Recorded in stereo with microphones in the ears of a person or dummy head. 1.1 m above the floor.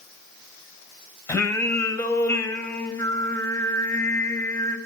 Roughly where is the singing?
Centre.